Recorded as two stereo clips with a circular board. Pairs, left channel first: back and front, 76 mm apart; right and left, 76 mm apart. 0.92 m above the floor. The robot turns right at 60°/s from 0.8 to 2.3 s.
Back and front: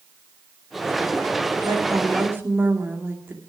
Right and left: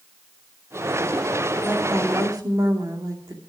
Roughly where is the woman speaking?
Ahead.